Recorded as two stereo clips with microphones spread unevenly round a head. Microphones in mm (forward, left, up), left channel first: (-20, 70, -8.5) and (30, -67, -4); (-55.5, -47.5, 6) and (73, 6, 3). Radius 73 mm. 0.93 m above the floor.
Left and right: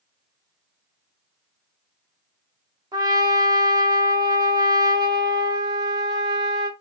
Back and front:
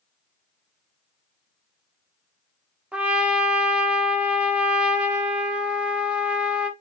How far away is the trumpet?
About 0.5 m.